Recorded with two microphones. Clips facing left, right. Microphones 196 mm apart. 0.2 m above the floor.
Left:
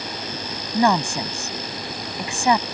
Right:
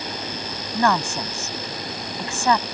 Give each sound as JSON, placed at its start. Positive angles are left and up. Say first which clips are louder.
{"t": 0.7, "sound": "a woman speaking", "louder": "left 2 dB", "side_deg": 15}